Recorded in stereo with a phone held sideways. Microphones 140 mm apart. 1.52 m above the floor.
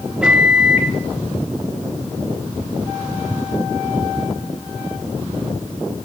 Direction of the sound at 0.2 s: 5° right (ahead or behind).